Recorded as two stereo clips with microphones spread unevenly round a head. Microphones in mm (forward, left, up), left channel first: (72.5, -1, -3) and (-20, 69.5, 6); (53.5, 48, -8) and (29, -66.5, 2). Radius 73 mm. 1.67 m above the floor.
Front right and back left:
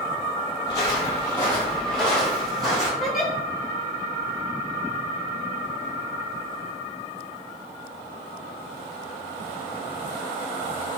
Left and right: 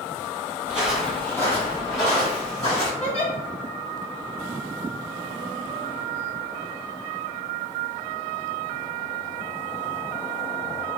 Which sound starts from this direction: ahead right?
Footsteps, at 0.7 s.